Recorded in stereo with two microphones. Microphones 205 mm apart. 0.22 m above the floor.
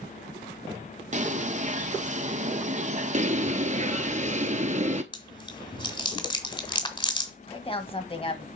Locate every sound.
1.1 s a bird: 35° right (ahead or behind), 0.6 m
3.1 s a bird: 40° right (ahead or behind), 0.7 m
5.1 s chewing: 25° left (ahead or behind), 1.7 m
7.5 s a woman speaking: 25° left (ahead or behind), 1.2 m